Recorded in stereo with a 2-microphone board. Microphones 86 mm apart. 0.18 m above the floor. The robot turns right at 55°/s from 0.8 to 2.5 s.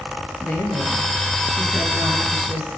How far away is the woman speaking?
About 3 m.